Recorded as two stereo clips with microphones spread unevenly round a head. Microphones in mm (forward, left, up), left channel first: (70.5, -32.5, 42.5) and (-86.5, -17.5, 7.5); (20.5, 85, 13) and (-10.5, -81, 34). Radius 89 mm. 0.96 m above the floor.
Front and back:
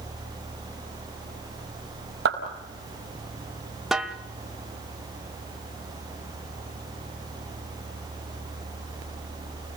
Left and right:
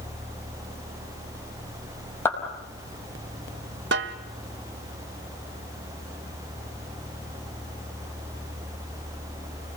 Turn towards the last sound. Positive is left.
turn(degrees=-90)